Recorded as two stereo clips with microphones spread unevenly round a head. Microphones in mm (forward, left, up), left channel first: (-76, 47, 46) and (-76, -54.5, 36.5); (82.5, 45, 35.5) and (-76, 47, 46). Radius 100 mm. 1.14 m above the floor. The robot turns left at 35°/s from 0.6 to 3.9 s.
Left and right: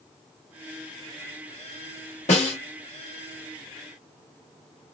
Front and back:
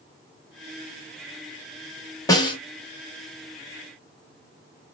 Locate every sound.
2.3 s a snare drum: 65° left, 1.3 m; by 2.6 s 55° left, 1.3 m